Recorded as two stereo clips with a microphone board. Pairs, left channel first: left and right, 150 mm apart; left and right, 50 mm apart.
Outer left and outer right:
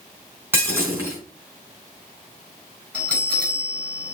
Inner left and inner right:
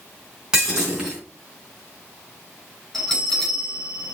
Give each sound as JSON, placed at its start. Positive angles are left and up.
{"t": 0.5, "sound": "breaking glass", "side_deg": -15, "distance_m": 4.0}
{"t": 2.9, "sound": "a bell", "side_deg": 10, "distance_m": 3.5}